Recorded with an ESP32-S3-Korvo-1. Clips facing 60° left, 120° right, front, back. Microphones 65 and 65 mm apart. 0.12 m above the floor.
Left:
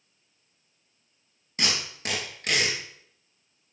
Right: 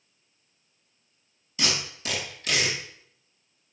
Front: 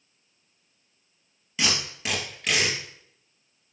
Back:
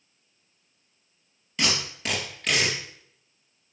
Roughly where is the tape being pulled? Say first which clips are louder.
Even, even; left.